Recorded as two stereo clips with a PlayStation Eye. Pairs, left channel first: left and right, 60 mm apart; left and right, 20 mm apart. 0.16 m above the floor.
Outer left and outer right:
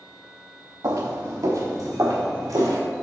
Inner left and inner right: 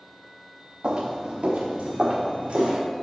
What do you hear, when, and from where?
0.8 s footsteps: 85° right, 0.9 m